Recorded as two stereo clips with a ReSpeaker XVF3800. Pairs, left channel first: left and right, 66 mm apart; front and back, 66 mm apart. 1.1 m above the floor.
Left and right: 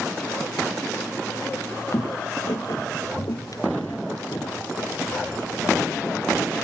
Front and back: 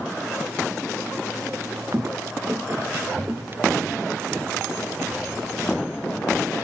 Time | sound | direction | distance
1.5 | footsteps | 135° left | ?